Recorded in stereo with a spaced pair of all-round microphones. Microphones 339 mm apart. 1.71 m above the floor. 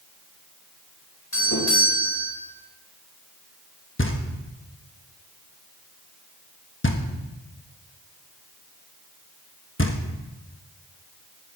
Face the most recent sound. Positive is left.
turn(degrees=35)  # may be behind; listen again after turning